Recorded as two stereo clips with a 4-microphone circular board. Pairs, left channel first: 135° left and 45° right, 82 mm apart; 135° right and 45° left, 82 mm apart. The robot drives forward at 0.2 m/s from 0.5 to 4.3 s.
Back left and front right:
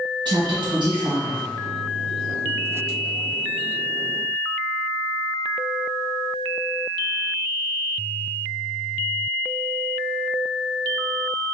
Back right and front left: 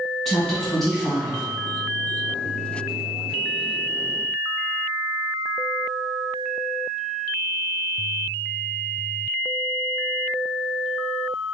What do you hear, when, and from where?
0.2 s a woman speaking: 50° right, 1.6 m; by 1.4 s 55° right, 1.5 m